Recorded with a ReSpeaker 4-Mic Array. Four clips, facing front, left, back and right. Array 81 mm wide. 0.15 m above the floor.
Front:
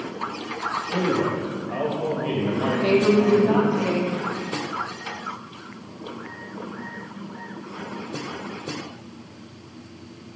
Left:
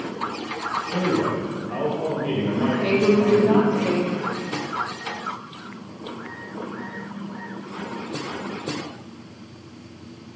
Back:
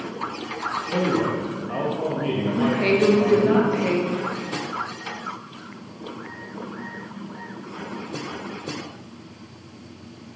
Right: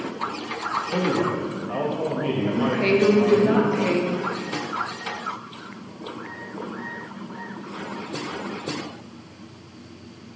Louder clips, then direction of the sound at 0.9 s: Left 1 dB, back 1 dB; 120° right.